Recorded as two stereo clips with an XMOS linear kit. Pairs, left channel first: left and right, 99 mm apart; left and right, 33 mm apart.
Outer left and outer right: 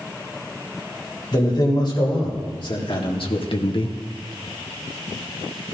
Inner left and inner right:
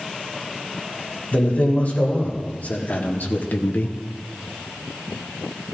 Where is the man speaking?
50° left (ahead or behind), 4 m; by 4.0 s 45° left (ahead or behind), 0.8 m.